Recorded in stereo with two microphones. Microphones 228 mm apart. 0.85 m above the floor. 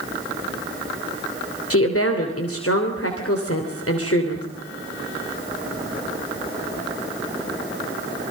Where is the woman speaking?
80° left, 3 m.